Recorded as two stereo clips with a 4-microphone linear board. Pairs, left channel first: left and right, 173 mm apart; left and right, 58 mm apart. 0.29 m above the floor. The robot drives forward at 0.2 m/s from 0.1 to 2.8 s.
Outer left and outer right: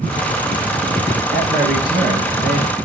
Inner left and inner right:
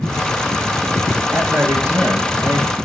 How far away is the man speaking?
About 4 m.